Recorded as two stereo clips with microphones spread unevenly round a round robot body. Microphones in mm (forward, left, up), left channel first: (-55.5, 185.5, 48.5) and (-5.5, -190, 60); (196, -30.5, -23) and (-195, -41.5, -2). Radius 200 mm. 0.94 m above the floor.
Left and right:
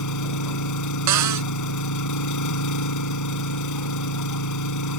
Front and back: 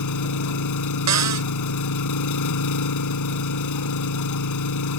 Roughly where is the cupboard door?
Behind right.